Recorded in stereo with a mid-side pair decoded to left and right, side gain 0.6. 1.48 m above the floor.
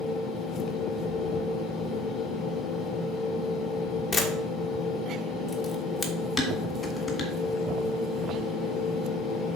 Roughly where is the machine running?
Ahead left.